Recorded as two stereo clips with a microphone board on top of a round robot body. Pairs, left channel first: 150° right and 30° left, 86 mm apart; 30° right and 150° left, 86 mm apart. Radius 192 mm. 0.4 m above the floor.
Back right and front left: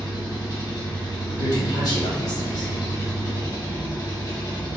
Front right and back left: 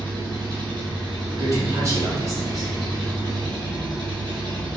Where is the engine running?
175° left, 1.7 m.